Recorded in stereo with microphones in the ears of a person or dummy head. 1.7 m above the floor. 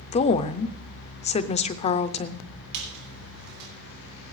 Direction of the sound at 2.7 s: 60° right (ahead or behind).